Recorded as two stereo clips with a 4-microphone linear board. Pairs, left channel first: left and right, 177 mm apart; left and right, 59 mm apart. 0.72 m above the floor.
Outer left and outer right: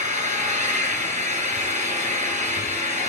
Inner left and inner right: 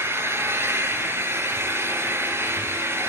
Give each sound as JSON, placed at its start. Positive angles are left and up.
{"t": 0.0, "sound": "an engine running", "side_deg": -45, "distance_m": 8.0}